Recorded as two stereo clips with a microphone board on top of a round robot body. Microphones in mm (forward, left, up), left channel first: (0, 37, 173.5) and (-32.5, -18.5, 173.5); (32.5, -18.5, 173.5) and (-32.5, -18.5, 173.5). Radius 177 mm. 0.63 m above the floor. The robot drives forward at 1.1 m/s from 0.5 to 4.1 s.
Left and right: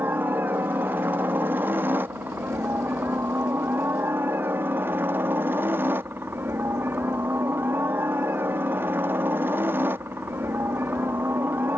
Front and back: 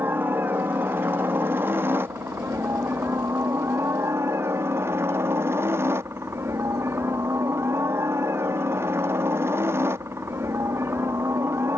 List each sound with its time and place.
0.0 s a helicopter: 150° right; by 11.8 s 155° right